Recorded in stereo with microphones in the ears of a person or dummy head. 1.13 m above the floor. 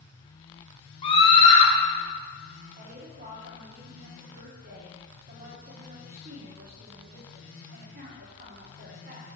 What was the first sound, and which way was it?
A scream, 25° left (ahead or behind).